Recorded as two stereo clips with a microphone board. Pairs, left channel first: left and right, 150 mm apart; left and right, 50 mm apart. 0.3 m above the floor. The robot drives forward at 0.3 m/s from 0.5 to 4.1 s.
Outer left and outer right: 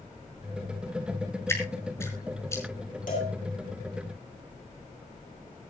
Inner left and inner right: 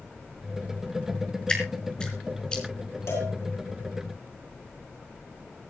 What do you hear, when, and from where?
1.5 s dripping: 20° left (ahead or behind), 4 m
3.1 s a cowbell: 65° left (ahead or behind), 9 m